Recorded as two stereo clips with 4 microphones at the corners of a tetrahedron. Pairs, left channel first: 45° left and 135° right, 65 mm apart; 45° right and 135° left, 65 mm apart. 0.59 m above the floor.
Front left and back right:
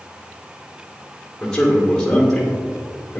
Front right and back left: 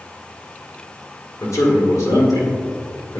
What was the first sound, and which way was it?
A man speaking, 40° right.